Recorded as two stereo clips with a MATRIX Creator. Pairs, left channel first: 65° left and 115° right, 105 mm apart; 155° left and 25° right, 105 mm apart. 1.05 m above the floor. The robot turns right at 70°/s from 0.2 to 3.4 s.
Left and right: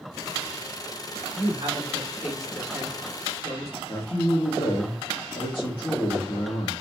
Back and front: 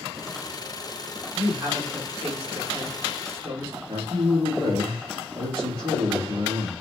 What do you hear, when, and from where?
1.3 s a woman speaking: 100° right, 3.5 m; by 3.8 s 40° left, 3.5 m
3.9 s a man speaking: 25° left, 2.0 m